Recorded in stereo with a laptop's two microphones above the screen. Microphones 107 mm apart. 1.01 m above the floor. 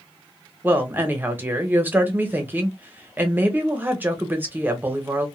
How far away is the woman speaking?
About 1.3 m.